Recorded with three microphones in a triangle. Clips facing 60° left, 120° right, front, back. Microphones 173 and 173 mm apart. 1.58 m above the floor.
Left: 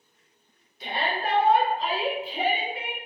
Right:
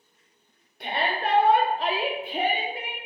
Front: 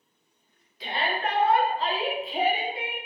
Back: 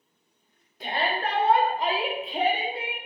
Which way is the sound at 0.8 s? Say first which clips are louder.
Right 1 dB, back 1 dB; 140° right.